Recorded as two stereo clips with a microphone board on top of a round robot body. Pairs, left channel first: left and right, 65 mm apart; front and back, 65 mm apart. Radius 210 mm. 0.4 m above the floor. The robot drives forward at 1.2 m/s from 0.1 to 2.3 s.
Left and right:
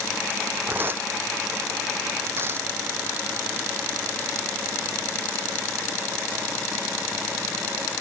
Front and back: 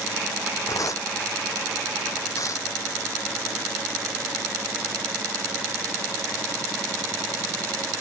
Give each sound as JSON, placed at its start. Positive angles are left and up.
{"t": 0.7, "sound": "tearing paper", "azimuth_deg": -30}